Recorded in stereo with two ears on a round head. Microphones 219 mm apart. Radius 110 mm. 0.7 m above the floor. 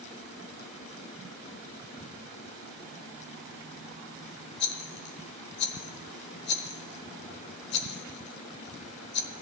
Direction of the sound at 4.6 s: 50° left (ahead or behind).